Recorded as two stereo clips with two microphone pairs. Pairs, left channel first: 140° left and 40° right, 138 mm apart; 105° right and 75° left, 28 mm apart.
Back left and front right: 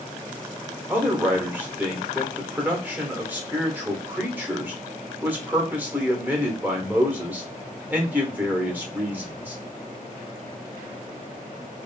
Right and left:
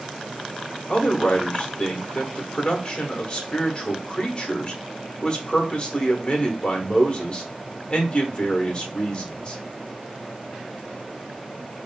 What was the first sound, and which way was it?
A man speaking, 110° right.